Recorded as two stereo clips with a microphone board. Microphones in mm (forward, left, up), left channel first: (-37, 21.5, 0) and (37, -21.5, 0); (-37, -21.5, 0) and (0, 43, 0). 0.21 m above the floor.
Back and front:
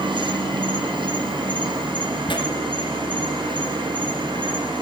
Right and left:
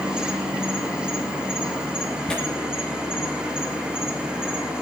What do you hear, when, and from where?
0.0 s an insect: 20° right, 2.5 m
2.3 s tearing paper: 160° left, 3 m